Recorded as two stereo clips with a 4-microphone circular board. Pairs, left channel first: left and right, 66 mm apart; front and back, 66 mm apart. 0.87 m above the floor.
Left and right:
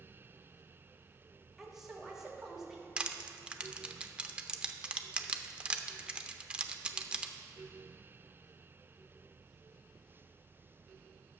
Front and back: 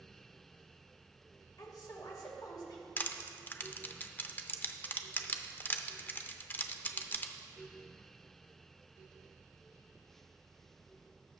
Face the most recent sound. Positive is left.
turn(degrees=-25)